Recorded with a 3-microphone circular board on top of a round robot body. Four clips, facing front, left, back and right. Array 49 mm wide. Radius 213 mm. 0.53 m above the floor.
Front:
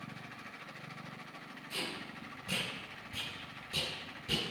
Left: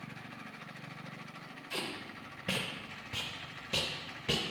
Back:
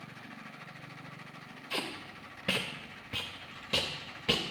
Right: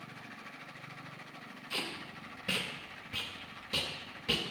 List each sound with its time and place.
1.7 s tape being pulled: 170° left, 0.5 m